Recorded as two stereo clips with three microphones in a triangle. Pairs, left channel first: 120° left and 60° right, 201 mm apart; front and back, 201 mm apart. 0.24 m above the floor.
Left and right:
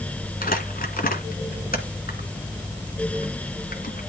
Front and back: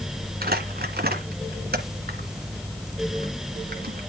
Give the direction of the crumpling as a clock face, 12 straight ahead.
7 o'clock.